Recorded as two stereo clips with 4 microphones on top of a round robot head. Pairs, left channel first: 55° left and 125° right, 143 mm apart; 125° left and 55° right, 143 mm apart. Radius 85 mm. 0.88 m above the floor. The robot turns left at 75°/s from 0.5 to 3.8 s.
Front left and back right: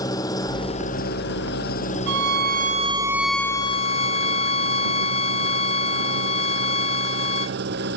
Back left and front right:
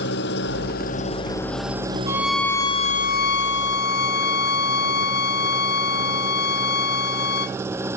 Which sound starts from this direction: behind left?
An engine running, at 0.0 s.